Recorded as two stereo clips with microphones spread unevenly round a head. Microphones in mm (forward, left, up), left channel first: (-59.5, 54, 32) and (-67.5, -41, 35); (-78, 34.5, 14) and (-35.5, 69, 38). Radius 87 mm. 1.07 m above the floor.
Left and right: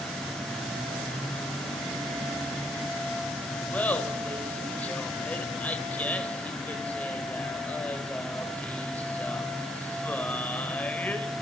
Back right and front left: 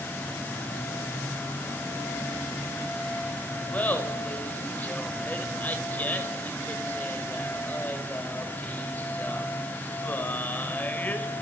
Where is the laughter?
160° left, 4.5 m.